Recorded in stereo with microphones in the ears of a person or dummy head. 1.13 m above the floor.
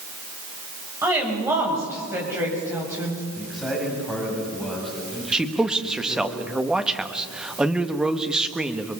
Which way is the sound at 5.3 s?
5° right (ahead or behind).